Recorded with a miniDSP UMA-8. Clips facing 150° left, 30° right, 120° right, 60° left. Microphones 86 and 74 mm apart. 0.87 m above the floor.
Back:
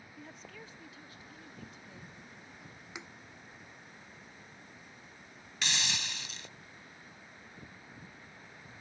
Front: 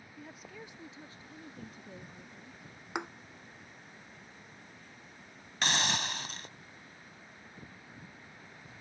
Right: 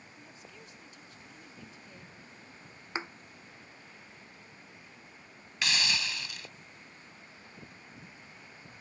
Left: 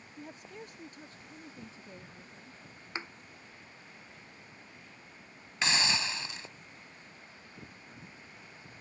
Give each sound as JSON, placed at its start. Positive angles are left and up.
{"t": 0.2, "sound": "a woman speaking", "azimuth_deg": 60}
{"t": 3.0, "sound": "a thud", "azimuth_deg": -50}
{"t": 5.6, "sound": "a hiss", "azimuth_deg": 0}